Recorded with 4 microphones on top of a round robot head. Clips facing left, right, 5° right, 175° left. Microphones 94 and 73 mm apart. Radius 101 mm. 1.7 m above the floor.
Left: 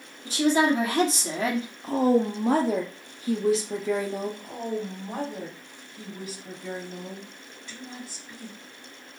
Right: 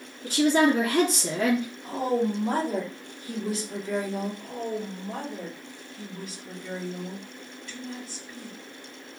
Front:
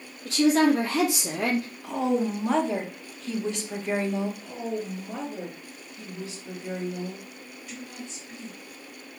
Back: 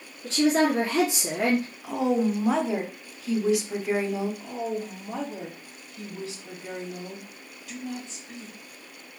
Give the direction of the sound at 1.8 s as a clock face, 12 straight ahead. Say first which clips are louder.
Left 5 dB, back 1 dB; 9 o'clock.